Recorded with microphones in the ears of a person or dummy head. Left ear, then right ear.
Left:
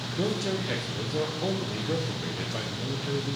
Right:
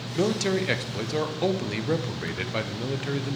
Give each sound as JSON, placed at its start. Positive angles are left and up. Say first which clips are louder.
{"t": 0.2, "sound": "a man speaking", "louder": "right 5 dB", "side_deg": -60, "distance_m": 0.6}